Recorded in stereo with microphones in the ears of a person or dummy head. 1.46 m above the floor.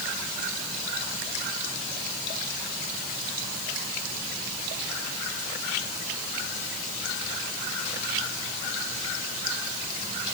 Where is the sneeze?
I don't hear a sneeze.